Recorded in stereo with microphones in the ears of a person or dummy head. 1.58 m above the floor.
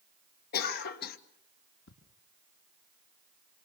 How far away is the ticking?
About 3.5 m.